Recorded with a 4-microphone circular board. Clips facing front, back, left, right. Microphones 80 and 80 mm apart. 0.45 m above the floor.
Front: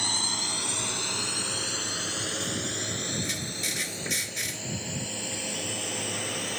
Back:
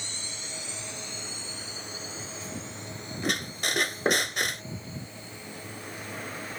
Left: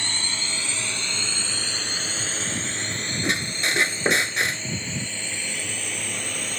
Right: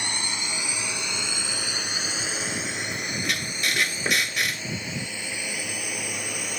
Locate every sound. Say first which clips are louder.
0.0 s a drone: front 9 dB, even; 15° right; by 6.6 s 10° right
3.2 s a squeak: back 4 dB, left 5 dB; 150° left